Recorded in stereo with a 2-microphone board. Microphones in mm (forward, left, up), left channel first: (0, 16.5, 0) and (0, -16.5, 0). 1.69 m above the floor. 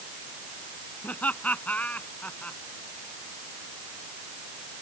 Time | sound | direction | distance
1.0 | laughter | 50° left (ahead or behind) | ?